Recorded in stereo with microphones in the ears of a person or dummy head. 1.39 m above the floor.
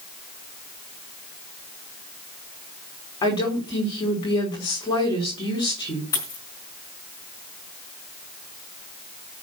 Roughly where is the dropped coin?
Centre.